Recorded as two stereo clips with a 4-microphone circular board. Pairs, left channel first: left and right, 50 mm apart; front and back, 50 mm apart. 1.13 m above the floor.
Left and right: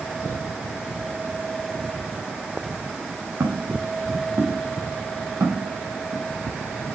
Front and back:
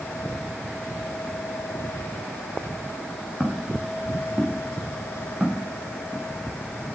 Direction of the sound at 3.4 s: 95° right.